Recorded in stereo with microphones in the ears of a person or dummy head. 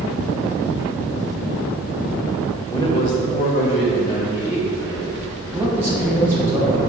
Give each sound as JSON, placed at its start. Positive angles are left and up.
{"t": 2.7, "sound": "a man speaking", "side_deg": 20, "distance_m": 0.6}
{"t": 5.5, "sound": "a man speaking", "side_deg": -10, "distance_m": 0.5}